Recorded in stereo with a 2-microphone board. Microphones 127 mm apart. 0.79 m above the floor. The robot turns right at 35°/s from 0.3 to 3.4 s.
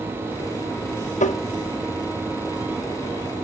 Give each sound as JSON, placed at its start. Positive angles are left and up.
{"t": 1.2, "sound": "tapping", "side_deg": 75, "distance_m": 0.6}